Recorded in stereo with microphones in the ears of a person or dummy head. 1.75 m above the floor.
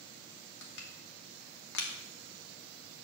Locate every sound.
0.6 s crushing: 65° left (ahead or behind), 1.0 m